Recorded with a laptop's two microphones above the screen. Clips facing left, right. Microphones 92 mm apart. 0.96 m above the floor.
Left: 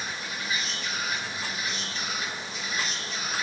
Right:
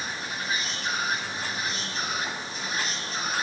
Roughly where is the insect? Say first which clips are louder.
Right 2 dB; right.